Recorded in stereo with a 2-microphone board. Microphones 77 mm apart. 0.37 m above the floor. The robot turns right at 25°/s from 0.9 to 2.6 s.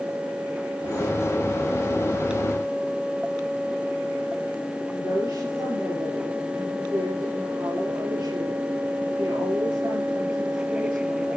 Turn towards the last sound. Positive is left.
turn(degrees=-65)  # may be behind; listen again after turning